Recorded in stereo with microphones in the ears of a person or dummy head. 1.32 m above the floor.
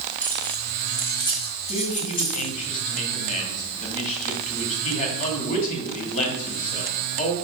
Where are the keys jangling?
5° left (ahead or behind), 2.5 m; by 2.5 s 40° left (ahead or behind), 2 m.